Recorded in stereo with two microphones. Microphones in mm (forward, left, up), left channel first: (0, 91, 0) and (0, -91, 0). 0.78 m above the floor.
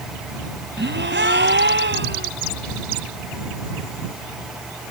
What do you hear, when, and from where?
0.8 s a gasp: 85° right